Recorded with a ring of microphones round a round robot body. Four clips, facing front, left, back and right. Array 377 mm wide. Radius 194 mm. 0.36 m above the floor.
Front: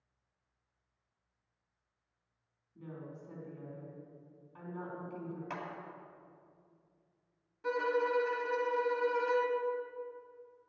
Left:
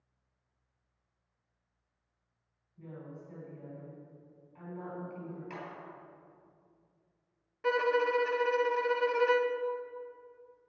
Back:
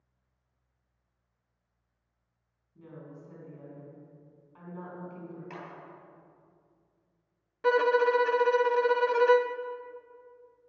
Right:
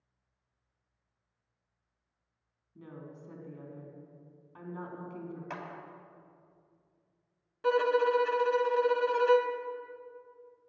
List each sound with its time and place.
2.8 s a woman speaking: 90° right, 4 m
5.5 s a clap: 65° right, 2.5 m
7.6 s a violin: 170° right, 0.7 m